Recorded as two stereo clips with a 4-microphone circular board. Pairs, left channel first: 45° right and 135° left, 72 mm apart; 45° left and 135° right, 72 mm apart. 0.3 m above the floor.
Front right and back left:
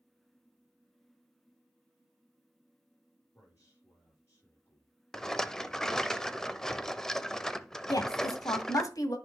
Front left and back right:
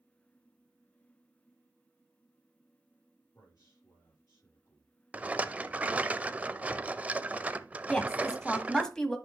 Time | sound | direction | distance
3.3 | a man speaking | 10° left | 6 m
5.1 | a rattle | 115° right | 0.5 m
7.9 | a woman speaking | 35° right | 1.8 m